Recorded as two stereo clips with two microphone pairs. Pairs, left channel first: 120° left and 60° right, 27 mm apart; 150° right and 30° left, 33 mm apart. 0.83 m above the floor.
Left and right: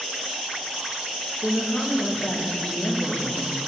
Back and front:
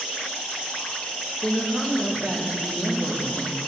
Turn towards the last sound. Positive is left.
turn(degrees=55)